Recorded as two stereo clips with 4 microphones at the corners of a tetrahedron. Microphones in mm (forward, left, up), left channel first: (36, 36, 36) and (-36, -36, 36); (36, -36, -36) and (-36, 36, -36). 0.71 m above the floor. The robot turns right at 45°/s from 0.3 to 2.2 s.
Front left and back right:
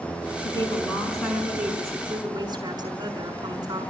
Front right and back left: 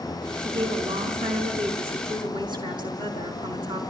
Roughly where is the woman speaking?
Left.